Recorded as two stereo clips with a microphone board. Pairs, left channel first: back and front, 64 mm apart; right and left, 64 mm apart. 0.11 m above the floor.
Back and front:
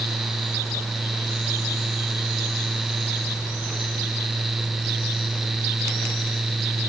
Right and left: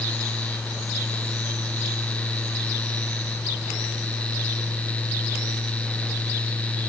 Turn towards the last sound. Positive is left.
No sound to turn to.